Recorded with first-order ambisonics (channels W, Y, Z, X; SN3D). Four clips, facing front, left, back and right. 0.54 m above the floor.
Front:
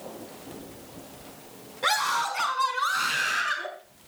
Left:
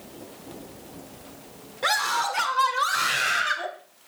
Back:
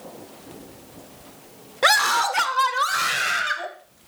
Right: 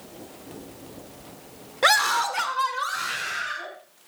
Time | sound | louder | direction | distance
1.8 | a scream | right 4 dB, back 7 dB | 145° right | 1.4 m